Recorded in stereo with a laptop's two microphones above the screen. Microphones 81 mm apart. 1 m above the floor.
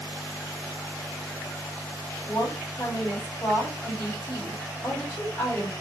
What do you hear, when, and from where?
2.3 s a woman speaking: 30° left (ahead or behind), 2 m